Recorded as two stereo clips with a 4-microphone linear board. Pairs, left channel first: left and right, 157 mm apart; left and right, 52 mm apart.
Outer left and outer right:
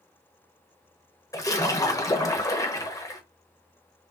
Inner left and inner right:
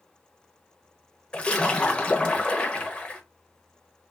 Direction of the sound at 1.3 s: 20° left (ahead or behind).